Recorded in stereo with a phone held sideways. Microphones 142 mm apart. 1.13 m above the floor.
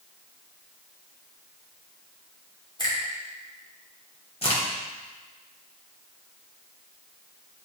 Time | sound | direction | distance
2.8 | a finger snap | 35° left (ahead or behind) | 3 m
4.4 | a crack | 45° left (ahead or behind) | 2.5 m